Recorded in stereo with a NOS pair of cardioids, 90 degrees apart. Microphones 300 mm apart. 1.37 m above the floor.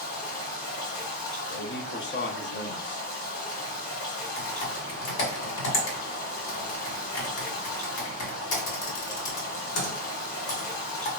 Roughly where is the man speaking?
Ahead left.